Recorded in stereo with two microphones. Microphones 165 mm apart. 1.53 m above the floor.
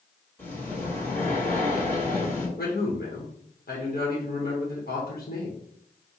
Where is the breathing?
10° left (ahead or behind), 1.4 m.